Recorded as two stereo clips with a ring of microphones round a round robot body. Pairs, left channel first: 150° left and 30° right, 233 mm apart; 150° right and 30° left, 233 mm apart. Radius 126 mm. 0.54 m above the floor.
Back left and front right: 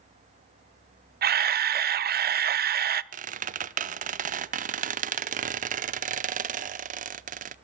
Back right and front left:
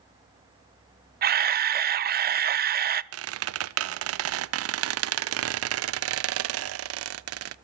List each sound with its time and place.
1.2 s a camera shutter: straight ahead, 0.5 m
3.1 s a squeak: 25° left, 0.5 m